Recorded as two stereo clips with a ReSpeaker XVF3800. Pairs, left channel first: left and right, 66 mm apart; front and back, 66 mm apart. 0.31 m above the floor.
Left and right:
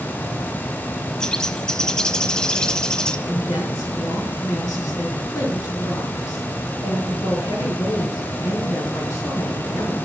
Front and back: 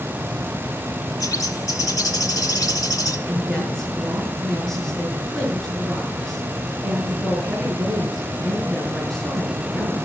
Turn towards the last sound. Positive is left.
turn(degrees=85)